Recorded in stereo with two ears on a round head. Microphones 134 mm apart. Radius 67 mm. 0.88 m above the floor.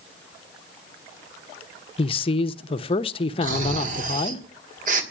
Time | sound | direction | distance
2.0 | a man speaking | 35° left (ahead or behind) | 0.8 m
3.4 | snoring | 55° right (ahead or behind) | 2 m